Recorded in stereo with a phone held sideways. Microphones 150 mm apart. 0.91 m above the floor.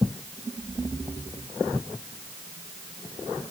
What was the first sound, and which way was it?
Only background noise.